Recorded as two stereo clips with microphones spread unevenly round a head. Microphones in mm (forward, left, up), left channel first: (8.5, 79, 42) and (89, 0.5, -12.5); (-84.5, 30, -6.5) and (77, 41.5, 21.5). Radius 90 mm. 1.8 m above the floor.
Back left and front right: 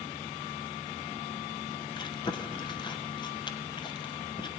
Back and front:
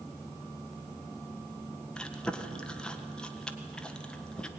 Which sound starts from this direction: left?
Chewing, at 1.9 s.